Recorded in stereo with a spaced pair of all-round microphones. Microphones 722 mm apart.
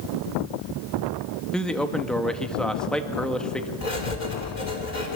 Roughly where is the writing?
Left.